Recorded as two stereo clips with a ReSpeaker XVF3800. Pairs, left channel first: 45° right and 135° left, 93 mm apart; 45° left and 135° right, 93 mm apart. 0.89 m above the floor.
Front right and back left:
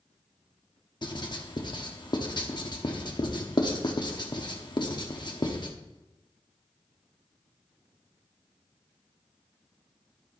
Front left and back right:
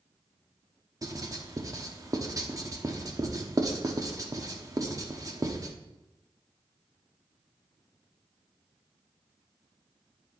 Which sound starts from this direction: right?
Writing, at 1.0 s.